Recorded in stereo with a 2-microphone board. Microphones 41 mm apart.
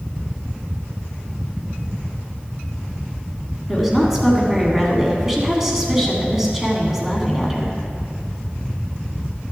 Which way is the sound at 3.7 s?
10° right (ahead or behind).